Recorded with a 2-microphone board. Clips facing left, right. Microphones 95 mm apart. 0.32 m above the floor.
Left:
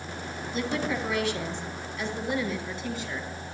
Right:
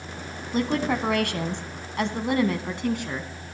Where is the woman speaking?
50° right (ahead or behind), 3 m; by 3.3 s 55° right (ahead or behind), 3.5 m.